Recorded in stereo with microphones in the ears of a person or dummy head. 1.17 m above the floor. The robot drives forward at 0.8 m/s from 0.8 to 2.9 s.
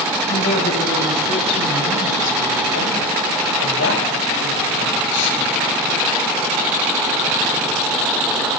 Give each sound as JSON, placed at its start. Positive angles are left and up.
{"t": 0.3, "sound": "a woman speaking", "side_deg": 55, "distance_m": 8.5}